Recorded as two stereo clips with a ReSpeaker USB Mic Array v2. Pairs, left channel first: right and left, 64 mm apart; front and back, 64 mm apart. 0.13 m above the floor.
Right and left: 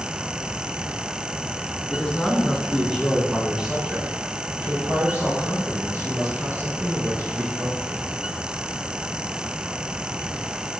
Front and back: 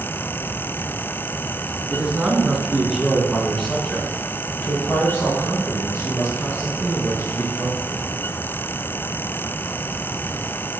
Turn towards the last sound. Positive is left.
turn(degrees=45)